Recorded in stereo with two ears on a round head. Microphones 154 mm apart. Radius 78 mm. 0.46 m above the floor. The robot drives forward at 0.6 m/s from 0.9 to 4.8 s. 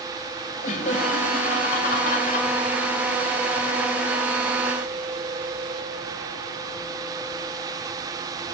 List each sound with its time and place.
0.6 s laughter: 45° left (ahead or behind), 2 m; by 2.5 s 55° left (ahead or behind), 1.8 m